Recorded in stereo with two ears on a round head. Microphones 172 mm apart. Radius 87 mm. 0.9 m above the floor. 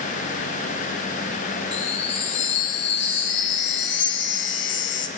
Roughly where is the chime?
Left.